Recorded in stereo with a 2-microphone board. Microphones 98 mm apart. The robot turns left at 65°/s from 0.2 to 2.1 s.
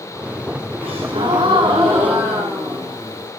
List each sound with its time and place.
0.8 s a gasp: 80° right, 9.5 m; by 3.3 s 165° right, 9.5 m